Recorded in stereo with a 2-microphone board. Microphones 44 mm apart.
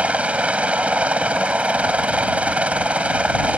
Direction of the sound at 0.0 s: 30° right (ahead or behind).